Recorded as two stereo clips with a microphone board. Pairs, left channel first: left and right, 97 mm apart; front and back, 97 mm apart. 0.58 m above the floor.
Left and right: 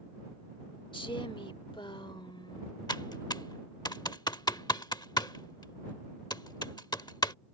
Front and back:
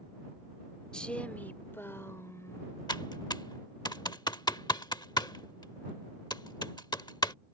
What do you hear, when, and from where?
0.9 s a woman speaking: 80° left; by 2.8 s 55° left
2.9 s typing on a keyboard: 45° left